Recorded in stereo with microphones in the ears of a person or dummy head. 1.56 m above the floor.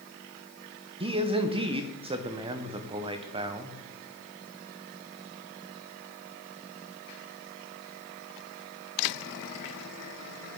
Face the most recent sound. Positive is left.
turn(degrees=-30)  # may be behind; listen again after turning